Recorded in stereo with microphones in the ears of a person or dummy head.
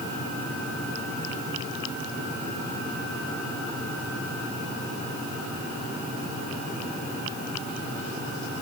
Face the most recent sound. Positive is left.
No sound to turn to.